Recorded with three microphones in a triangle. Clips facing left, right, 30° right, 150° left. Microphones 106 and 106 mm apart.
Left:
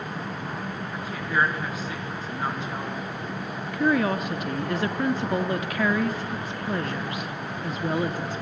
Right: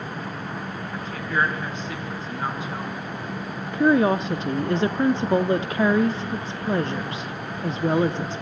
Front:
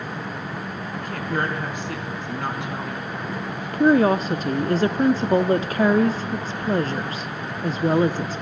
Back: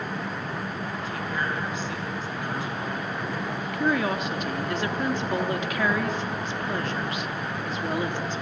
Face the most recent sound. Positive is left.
turn(degrees=-50)